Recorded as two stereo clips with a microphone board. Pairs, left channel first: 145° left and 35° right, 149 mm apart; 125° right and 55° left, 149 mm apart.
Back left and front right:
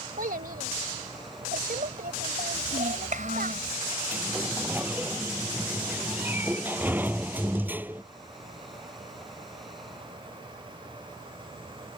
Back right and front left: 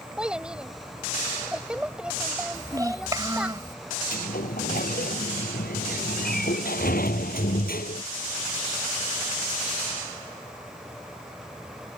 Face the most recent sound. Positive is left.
turn(degrees=-110)